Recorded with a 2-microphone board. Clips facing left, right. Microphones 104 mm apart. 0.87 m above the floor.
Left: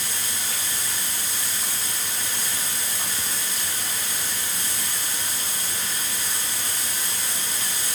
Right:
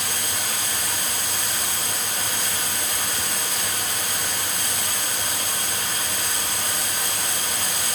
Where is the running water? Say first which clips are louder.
Right 4 dB; 65° right (ahead or behind), 0.9 m.